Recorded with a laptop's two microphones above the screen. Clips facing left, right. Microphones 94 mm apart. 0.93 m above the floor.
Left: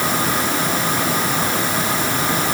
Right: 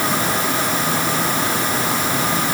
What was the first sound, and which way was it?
Only background noise.